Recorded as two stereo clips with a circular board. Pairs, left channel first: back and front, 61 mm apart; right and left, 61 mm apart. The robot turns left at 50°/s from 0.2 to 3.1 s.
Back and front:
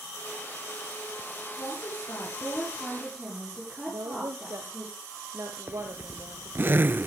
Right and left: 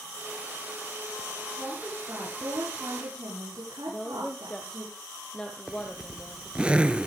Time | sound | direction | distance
1.6 | a woman speaking | 165° left | 7.5 m
3.9 | a woman speaking | 15° right | 2.5 m
5.7 | a zipper | 25° left | 0.6 m